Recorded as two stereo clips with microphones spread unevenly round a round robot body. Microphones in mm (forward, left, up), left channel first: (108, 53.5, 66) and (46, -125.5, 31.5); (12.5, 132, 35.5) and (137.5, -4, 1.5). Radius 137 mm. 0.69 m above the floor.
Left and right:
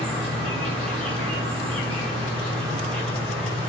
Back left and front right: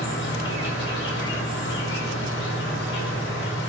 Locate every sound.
0.0 s an insect: 165° left, 0.8 m